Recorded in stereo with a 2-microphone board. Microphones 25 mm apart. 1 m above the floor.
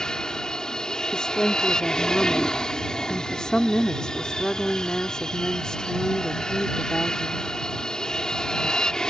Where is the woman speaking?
30° left (ahead or behind).